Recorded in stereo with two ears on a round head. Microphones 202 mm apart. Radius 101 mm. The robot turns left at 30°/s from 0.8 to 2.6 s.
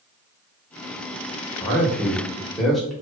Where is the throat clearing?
No throat clearing in this recording.